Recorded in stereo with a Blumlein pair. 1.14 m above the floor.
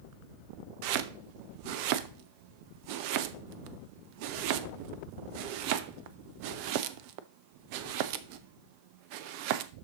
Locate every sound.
0.8 s chopping: 45° right, 0.6 m